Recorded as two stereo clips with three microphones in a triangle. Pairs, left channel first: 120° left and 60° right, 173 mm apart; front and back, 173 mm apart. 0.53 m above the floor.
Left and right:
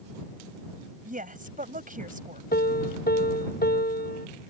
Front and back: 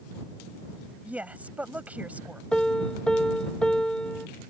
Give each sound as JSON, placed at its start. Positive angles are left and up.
{"t": 1.1, "sound": "a woman speaking", "azimuth_deg": -100}
{"t": 2.5, "sound": "a piano", "azimuth_deg": 85}